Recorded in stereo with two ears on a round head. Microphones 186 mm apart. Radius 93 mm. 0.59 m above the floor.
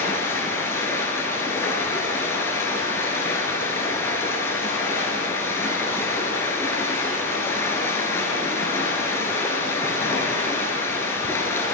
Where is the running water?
10° left (ahead or behind), 1.0 m.